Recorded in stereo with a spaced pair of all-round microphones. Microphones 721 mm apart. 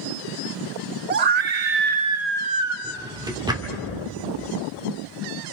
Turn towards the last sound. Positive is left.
turn(degrees=-5)  # may be behind; listen again after turning